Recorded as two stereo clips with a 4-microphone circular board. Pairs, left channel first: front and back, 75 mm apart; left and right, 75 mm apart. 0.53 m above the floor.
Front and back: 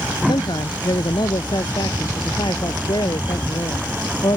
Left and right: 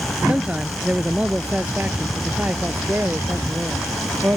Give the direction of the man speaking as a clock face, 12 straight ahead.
12 o'clock.